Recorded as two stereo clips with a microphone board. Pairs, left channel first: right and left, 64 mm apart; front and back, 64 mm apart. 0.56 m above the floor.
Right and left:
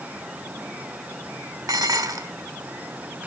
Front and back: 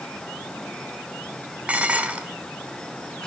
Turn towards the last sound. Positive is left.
turn(degrees=110)